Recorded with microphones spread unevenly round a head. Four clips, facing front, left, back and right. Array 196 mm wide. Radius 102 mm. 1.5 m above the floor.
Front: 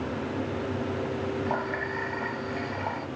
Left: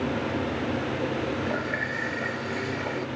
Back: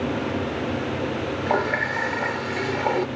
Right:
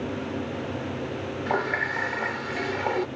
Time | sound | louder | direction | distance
1.5 | a running tap | right 2 dB, back 7 dB | 150° right | ?